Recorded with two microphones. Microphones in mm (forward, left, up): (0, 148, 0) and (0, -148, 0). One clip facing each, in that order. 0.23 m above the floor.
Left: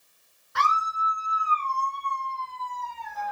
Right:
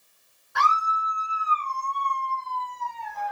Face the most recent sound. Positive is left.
turn(degrees=5)  # may be behind; listen again after turning